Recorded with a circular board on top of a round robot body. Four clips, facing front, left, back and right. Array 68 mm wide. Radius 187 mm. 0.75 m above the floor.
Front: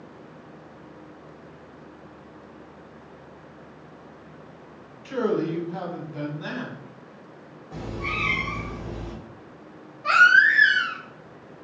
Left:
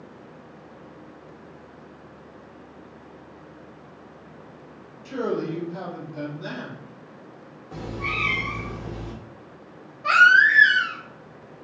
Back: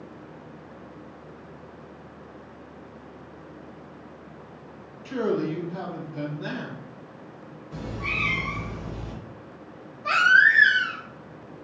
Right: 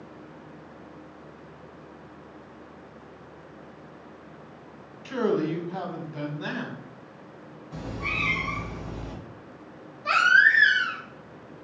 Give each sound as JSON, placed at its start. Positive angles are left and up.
{"t": 5.0, "sound": "a man speaking", "azimuth_deg": -65, "distance_m": 1.3}
{"t": 7.7, "sound": "a cat meowing", "azimuth_deg": 70, "distance_m": 1.4}
{"t": 10.0, "sound": "a baby crying", "azimuth_deg": 60, "distance_m": 1.4}